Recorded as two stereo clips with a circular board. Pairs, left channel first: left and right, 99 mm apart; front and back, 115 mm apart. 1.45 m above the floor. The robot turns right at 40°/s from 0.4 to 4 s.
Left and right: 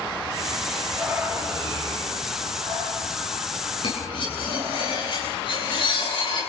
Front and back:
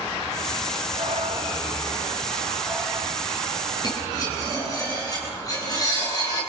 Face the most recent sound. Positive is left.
turn(degrees=60)